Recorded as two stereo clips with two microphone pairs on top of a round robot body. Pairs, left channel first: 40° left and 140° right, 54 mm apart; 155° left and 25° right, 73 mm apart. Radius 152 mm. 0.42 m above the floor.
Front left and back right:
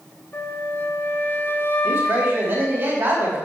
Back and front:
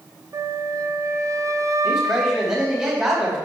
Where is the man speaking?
100° right, 4 m.